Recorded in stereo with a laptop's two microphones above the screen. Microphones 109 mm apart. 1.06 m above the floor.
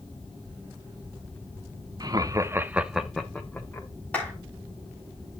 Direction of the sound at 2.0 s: 35° right (ahead or behind).